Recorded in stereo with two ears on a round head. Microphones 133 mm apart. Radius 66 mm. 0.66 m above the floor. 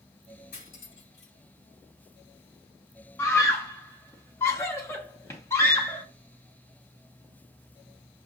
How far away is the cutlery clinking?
About 3.5 m.